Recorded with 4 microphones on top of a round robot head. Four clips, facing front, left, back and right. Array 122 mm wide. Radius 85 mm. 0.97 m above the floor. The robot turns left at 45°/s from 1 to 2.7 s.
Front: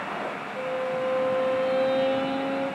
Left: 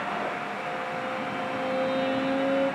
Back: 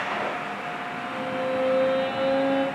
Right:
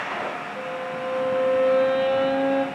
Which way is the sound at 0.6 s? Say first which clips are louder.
Right 2 dB, front 5 dB; 45° right.